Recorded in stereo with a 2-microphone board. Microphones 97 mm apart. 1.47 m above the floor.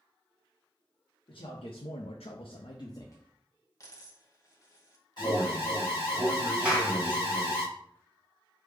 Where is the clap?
10° right (ahead or behind), 1.3 m.